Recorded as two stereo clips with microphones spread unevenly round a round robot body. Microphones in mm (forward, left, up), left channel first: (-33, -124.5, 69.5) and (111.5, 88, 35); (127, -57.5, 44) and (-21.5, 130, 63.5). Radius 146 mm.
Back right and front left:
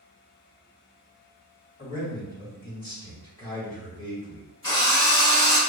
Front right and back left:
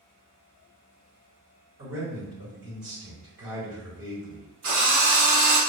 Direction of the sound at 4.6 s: 160° left.